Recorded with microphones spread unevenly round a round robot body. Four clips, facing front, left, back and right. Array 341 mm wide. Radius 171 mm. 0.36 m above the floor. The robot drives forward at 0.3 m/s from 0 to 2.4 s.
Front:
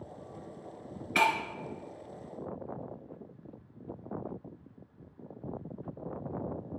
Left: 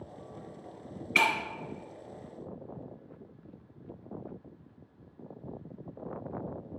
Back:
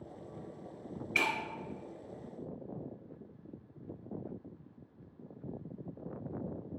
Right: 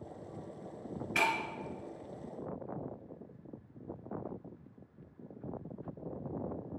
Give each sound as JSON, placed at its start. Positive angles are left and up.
{"t": 1.1, "sound": "breaking glass", "azimuth_deg": 20, "distance_m": 1.8}